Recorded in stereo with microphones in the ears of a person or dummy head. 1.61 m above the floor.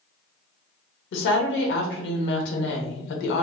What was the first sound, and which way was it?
A woman speaking, 80° left.